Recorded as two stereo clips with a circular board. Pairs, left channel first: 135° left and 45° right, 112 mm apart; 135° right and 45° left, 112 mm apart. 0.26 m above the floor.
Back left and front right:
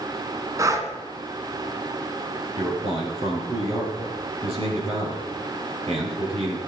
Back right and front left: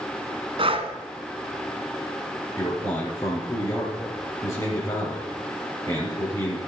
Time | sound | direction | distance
0.6 | breathing | 15° left | 1.4 m
2.6 | a man speaking | 75° right | 5.5 m